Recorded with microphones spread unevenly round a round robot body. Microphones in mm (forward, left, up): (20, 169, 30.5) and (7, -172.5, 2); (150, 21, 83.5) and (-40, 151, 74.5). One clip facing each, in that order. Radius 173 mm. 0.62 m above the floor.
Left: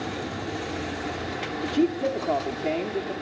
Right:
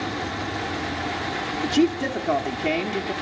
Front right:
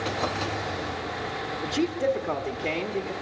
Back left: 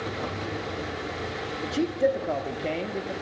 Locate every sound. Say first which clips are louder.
1.6 s a man speaking: right 3 dB, back left 1 dB; 130° right, 1.0 m